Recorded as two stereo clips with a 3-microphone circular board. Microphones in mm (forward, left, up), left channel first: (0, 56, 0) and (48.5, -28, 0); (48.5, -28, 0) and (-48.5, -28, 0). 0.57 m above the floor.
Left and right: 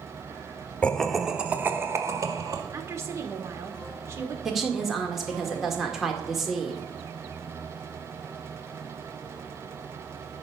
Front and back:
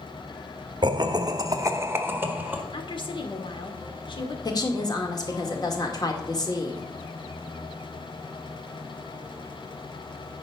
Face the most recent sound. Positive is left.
turn(degrees=25)